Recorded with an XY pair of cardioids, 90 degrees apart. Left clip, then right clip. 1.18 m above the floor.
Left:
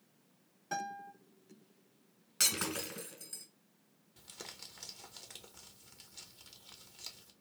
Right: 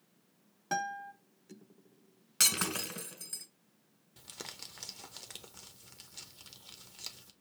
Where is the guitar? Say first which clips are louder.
Right 5 dB; 65° right, 1.7 m.